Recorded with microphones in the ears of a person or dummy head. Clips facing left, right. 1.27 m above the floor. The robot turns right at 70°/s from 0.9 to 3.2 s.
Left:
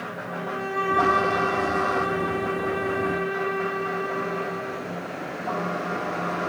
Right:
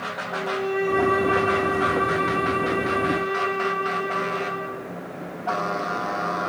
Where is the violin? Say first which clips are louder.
Right 6 dB; 120° left, 5 m; by 4.8 s 80° right, 5 m.